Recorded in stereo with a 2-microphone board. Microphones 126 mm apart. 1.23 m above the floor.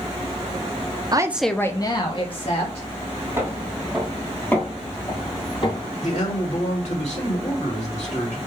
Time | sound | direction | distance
1.1 | a woman speaking | 35° right (ahead or behind) | 0.6 m
3.4 | footsteps | 15° right (ahead or behind) | 1.9 m
6.0 | a man speaking | 70° left (ahead or behind) | 2 m